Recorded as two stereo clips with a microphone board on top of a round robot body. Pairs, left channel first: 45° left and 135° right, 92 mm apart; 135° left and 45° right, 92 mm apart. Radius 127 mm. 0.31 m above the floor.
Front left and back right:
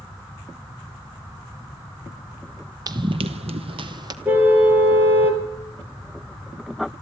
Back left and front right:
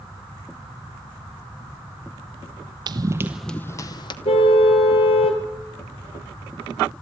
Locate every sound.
2.9 s running footsteps: 85° right, 0.6 m; by 4.2 s 175° left, 0.7 m
4.2 s a car horn: 155° left, 3.5 m